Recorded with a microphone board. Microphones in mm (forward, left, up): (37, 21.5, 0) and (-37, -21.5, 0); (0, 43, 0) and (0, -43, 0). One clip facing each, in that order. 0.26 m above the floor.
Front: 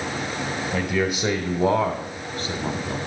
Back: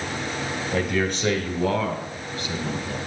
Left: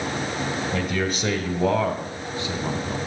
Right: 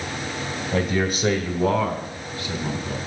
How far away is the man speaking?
About 1.0 m.